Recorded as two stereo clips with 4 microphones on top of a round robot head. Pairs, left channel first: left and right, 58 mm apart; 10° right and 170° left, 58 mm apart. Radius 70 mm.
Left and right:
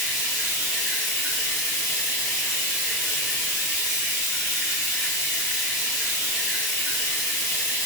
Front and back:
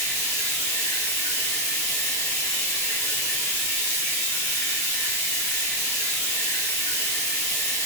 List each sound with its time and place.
0.0 s running water: 20° right, 1.0 m